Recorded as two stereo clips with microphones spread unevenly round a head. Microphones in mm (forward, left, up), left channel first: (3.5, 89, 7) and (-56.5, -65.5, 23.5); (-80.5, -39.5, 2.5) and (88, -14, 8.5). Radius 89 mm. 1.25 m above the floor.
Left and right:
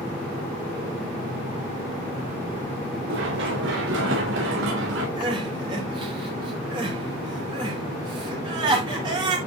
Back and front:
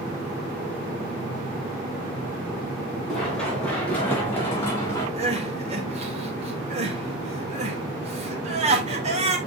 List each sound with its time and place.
3.1 s running footsteps: 85° right, 6 m; by 5.1 s 100° right, 6 m
5.2 s crying: 45° right, 2.5 m